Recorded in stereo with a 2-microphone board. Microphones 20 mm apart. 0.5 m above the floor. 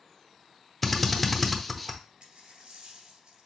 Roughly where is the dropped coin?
Right.